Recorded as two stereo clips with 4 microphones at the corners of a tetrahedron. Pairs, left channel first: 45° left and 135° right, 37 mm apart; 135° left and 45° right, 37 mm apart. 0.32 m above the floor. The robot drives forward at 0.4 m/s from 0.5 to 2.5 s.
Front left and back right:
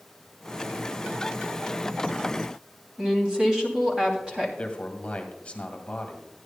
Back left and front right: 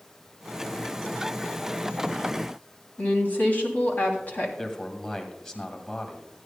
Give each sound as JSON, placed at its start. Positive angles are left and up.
{"t": 3.0, "sound": "a woman speaking", "azimuth_deg": 165, "distance_m": 2.5}
{"t": 4.6, "sound": "a man speaking", "azimuth_deg": 75, "distance_m": 1.8}